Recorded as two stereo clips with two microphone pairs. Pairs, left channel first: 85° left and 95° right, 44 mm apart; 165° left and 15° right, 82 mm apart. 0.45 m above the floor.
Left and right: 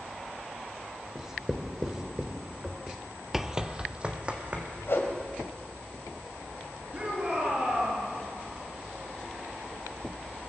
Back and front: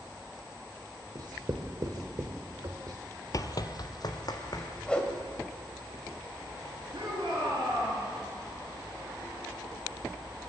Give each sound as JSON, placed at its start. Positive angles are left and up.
{"t": 1.1, "sound": "writing", "azimuth_deg": -25, "distance_m": 1.2}
{"t": 3.3, "sound": "running footsteps", "azimuth_deg": 180, "distance_m": 0.5}
{"t": 4.9, "sound": "a whoosh", "azimuth_deg": 90, "distance_m": 2.0}
{"t": 6.9, "sound": "a shout", "azimuth_deg": -45, "distance_m": 5.5}